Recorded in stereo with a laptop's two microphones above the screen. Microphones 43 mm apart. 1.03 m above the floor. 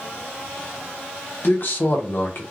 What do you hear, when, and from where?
1.4 s a man speaking: 50° left (ahead or behind), 0.9 m